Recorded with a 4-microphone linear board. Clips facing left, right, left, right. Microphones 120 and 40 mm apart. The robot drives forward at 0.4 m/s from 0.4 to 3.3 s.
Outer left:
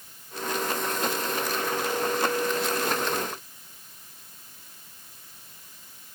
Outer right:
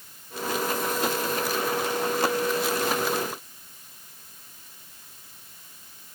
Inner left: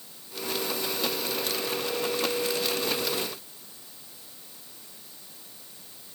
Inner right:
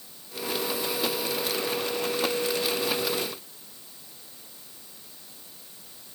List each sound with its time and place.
Only background noise.